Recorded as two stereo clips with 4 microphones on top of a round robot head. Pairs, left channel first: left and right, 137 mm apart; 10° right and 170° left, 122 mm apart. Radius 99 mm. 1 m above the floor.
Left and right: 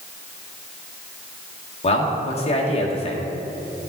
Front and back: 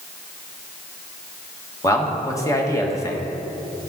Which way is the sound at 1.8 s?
50° left.